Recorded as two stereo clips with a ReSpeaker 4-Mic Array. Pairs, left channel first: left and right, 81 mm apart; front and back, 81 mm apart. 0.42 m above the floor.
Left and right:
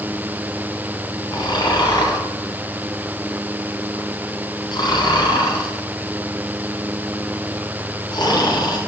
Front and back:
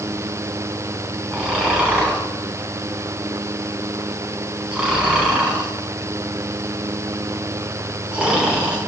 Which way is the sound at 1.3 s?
100° left.